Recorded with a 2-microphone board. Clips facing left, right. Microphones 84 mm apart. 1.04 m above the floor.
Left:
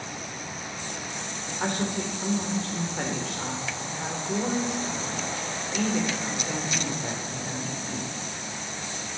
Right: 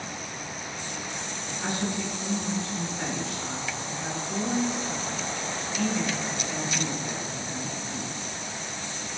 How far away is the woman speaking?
About 3.5 m.